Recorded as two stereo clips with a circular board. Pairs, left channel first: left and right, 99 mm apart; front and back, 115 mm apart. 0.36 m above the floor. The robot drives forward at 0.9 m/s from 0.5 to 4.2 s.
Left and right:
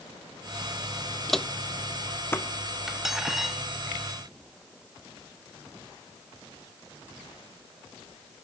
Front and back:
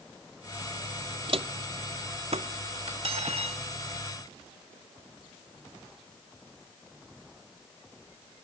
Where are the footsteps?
Straight behind, 0.5 m; by 3.4 s 150° left, 2 m.